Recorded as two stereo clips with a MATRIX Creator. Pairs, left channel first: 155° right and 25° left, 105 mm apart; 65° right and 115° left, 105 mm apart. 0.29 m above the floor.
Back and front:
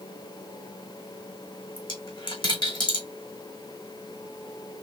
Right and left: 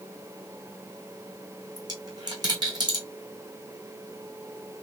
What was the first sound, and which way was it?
A dropped coin, 160° left.